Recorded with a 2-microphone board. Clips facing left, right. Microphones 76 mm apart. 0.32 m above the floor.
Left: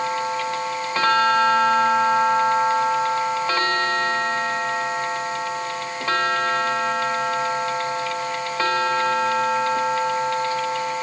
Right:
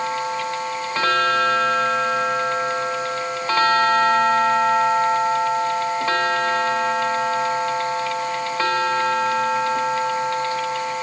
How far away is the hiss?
I don't hear a hiss.